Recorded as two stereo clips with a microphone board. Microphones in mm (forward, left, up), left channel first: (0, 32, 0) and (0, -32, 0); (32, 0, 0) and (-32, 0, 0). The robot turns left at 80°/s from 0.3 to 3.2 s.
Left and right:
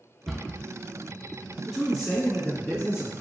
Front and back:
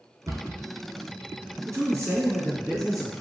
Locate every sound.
0.3 s a cupboard door: straight behind, 0.5 m; by 0.6 s 155° left, 0.5 m
1.7 s a man speaking: 165° right, 1.8 m; by 3.2 s 70° left, 1.8 m